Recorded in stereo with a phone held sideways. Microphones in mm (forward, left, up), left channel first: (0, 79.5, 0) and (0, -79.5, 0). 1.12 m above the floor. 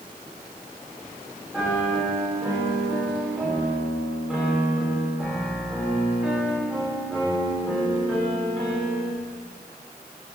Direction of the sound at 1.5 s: 5° left (ahead or behind).